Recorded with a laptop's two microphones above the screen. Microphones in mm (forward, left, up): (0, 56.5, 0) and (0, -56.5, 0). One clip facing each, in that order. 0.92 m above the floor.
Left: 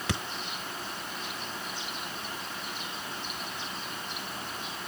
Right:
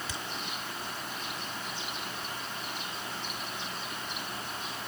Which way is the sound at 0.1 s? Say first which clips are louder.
Left 7 dB; 75° left (ahead or behind).